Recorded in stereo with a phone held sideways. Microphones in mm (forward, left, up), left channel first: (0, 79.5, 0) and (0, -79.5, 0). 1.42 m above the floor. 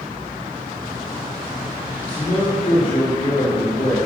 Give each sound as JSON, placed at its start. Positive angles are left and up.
{"t": 2.0, "sound": "a man speaking", "side_deg": 35, "distance_m": 3.5}